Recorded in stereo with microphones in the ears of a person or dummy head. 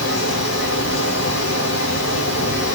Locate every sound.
0.0 s a fan: 75° left (ahead or behind), 2 m